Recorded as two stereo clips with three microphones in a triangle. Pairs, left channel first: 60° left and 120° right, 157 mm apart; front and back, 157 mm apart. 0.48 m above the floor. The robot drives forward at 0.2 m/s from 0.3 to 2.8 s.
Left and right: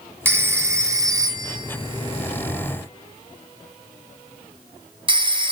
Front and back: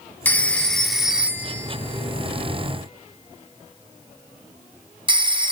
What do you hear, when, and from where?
0.2 s a phone ringing: 65° right, 0.6 m; by 5.5 s 150° right, 0.7 m